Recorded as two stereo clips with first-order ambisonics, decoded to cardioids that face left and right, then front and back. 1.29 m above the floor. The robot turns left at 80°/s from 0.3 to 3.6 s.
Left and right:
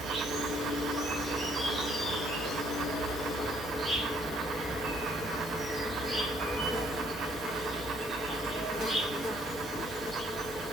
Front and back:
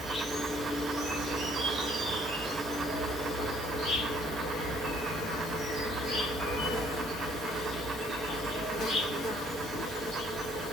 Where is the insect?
85° right, 1.0 m; by 10.7 s 10° left, 1.0 m.